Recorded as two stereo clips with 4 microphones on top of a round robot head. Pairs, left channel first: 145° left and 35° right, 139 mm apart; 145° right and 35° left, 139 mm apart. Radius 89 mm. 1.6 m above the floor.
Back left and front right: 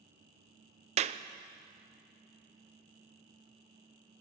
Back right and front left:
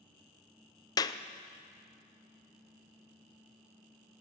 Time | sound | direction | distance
1.0 | a clap | 80° right | 0.7 m